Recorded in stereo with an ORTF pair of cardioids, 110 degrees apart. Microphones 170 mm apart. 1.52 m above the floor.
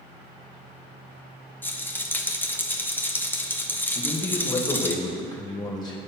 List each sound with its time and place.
1.6 s a rattle: 10° left, 1.3 m
4.0 s a man speaking: 25° left, 2 m